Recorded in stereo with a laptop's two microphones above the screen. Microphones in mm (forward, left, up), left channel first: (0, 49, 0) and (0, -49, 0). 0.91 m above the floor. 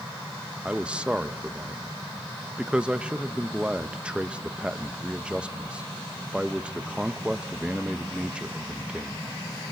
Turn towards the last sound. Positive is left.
turn(degrees=-10)  # may be behind; listen again after turning